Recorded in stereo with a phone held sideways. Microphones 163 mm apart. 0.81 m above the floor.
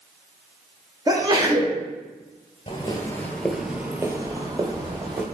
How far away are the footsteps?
About 0.9 m.